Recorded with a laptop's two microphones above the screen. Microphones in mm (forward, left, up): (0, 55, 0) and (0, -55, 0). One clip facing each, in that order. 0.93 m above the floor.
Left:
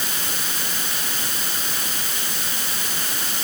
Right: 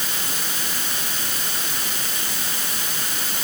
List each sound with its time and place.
Only background noise.